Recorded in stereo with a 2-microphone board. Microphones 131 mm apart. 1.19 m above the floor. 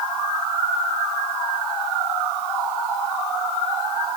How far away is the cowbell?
No cowbell in this recording.